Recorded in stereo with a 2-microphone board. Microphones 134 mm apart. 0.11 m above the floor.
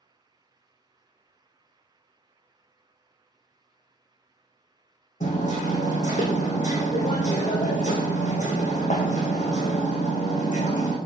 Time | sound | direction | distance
5.2 | hammering | 65° left (ahead or behind) | 1.5 m